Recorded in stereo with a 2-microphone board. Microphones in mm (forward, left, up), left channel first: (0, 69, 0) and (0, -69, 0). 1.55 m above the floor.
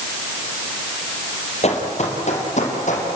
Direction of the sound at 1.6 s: 50° left (ahead or behind).